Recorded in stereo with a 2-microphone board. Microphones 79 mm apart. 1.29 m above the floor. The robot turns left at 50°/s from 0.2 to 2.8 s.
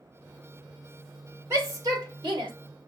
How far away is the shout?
About 2.5 m.